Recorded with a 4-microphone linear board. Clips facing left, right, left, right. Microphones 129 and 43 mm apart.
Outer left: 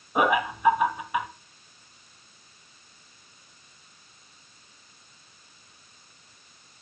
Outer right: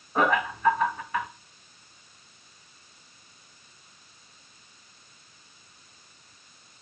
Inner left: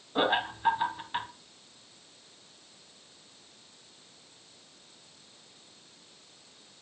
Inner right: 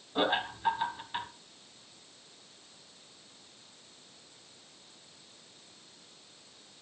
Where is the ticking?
No ticking in this recording.